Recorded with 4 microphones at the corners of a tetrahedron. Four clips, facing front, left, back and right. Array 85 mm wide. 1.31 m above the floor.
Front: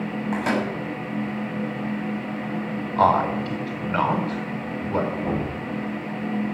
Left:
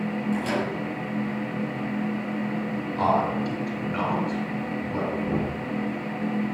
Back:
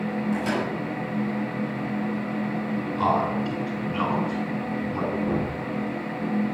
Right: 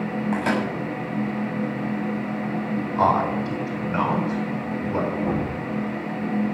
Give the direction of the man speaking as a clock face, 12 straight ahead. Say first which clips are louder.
Right 3 dB, front 5 dB; 1 o'clock.